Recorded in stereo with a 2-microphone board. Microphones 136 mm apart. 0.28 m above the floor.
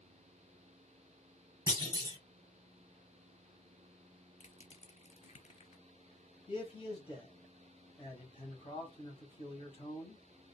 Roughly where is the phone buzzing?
I don't hear a phone buzzing.